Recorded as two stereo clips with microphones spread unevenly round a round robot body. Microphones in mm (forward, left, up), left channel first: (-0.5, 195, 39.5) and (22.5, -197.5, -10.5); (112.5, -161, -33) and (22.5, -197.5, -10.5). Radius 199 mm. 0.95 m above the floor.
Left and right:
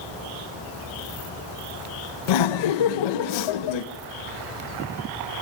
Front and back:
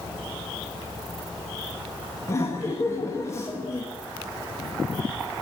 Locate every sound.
2.3 s laughter: 80° left, 0.9 m